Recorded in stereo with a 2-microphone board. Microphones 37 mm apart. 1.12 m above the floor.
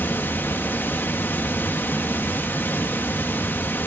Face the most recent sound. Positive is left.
turn(degrees=65)  # may be behind; listen again after turning